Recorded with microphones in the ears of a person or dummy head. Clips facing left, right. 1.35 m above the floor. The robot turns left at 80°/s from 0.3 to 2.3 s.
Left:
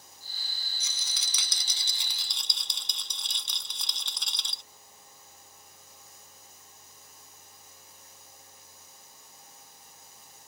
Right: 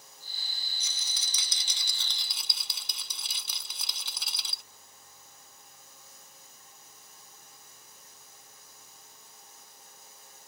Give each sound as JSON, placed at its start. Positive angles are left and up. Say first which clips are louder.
{"t": 0.8, "sound": "a rattle", "louder": "left 1 dB", "azimuth_deg": 115}